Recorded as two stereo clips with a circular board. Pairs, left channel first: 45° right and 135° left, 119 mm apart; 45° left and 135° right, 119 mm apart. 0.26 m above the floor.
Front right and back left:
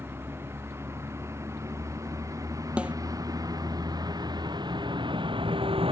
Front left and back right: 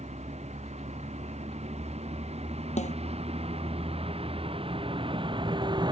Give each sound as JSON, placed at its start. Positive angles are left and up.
{"t": 0.0, "sound": "a vehicle", "azimuth_deg": -155}
{"t": 2.8, "sound": "a snare drum", "azimuth_deg": 55}